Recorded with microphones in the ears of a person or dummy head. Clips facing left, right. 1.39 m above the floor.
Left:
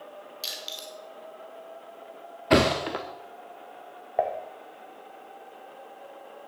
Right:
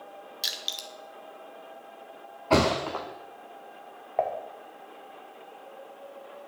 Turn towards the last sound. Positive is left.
turn(degrees=10)  # may be behind; listen again after turning